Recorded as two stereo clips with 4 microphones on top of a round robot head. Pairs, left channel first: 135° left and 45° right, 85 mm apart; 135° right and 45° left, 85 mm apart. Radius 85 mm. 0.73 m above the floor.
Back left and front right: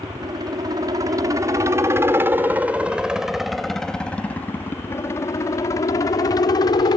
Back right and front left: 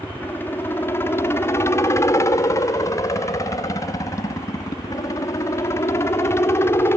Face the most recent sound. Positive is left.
turn(degrees=165)